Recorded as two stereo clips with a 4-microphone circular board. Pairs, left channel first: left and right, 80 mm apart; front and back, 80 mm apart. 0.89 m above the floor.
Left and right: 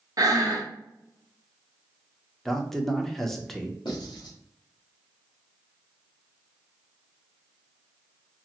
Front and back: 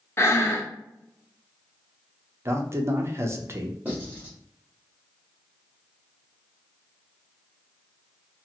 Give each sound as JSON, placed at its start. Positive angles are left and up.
{"t": 0.2, "sound": "breathing", "azimuth_deg": -55, "distance_m": 0.6}
{"t": 2.5, "sound": "a man speaking", "azimuth_deg": 175, "distance_m": 0.5}
{"t": 3.9, "sound": "writing", "azimuth_deg": 115, "distance_m": 1.4}